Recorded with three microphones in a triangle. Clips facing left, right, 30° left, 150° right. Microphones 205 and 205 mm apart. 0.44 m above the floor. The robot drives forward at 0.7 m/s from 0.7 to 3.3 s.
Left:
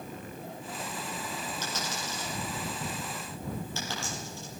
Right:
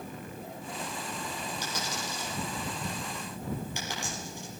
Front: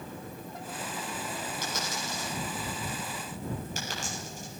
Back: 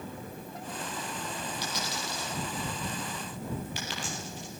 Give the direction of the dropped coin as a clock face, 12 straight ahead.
12 o'clock.